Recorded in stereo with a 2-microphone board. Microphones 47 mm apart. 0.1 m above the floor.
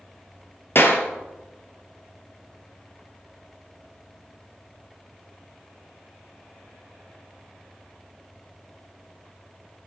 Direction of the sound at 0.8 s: 55° left (ahead or behind).